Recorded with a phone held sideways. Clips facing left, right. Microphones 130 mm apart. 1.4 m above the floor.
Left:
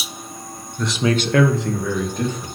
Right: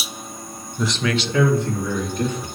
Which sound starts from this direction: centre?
A man speaking, at 0.8 s.